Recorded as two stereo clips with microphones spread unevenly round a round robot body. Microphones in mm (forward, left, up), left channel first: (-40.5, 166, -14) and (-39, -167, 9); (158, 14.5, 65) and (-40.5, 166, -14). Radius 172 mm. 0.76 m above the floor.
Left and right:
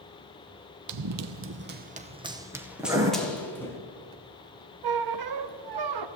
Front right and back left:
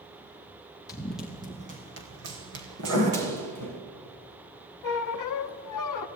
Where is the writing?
170° right, 4 m.